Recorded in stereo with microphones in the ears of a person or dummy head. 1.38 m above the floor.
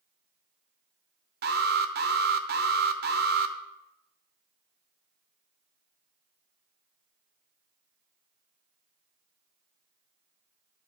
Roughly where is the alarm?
Right.